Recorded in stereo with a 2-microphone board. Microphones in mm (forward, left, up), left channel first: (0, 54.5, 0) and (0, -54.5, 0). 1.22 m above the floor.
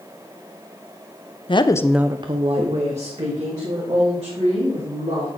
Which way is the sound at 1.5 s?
50° left (ahead or behind).